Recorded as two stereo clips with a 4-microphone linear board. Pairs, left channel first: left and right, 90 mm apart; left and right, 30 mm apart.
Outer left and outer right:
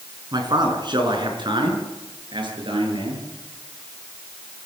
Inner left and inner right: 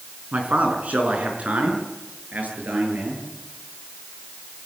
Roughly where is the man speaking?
Right.